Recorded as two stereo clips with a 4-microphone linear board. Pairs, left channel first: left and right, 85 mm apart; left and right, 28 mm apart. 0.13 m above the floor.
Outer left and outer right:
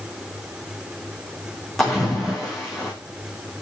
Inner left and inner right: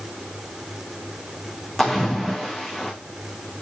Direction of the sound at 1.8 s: Centre (ahead or behind).